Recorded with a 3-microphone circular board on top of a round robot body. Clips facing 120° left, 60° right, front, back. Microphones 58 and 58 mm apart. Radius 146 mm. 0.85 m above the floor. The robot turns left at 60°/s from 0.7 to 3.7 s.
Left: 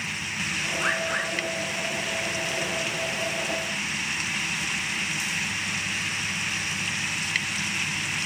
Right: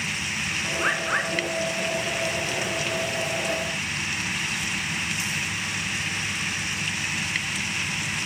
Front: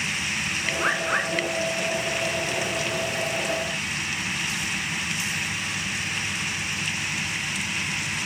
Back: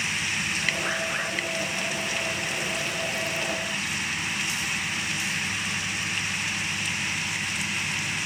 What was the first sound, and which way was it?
A bird, 25° left.